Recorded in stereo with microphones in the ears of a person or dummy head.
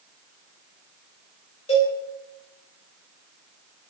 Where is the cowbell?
30° left (ahead or behind), 2.5 m.